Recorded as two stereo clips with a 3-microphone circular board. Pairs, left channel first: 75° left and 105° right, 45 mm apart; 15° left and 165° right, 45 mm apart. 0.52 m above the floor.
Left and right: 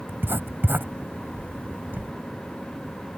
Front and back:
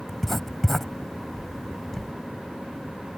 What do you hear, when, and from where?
0.1 s writing: 70° right